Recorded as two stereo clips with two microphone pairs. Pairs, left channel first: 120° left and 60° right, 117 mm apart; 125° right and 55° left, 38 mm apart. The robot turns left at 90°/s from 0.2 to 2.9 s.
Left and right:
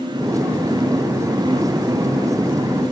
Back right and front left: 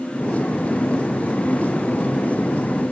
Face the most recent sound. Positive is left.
No sound to turn to.